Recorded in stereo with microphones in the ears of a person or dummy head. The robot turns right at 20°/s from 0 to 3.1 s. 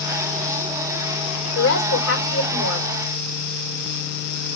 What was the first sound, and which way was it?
A woman speaking, 85° left.